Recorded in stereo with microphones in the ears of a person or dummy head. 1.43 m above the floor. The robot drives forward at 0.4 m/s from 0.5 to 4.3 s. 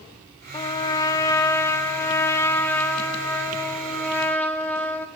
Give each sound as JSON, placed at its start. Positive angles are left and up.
{"t": 0.5, "sound": "a trumpet", "side_deg": 25, "distance_m": 0.9}